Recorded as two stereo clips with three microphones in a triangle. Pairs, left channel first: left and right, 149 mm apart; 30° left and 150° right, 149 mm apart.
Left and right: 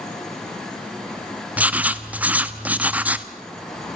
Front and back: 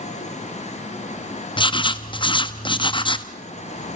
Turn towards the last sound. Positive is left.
turn(degrees=-15)